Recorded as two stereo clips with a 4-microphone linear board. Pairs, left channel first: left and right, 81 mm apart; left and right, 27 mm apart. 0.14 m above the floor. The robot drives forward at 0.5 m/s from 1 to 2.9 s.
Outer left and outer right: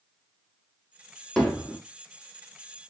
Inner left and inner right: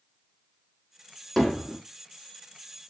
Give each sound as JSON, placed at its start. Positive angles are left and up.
{"t": 1.4, "sound": "hammering", "side_deg": 5, "distance_m": 1.2}